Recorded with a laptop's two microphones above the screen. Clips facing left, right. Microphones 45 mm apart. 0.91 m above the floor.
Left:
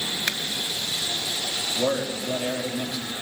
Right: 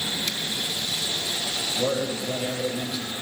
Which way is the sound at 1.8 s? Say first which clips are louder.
Left 1 dB; 5° left (ahead or behind).